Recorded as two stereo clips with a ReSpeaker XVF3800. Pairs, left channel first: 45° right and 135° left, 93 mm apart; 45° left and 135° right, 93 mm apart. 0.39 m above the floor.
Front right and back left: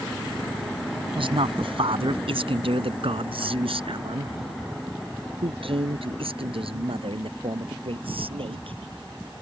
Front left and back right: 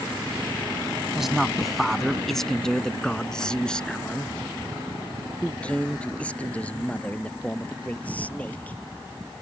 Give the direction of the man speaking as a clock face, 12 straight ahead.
7 o'clock.